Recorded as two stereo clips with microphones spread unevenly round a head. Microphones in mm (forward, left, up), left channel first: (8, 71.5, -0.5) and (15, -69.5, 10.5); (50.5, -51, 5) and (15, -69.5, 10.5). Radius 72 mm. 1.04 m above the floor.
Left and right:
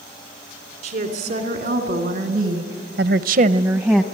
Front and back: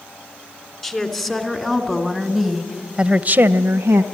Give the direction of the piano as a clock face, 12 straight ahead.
No piano in this recording.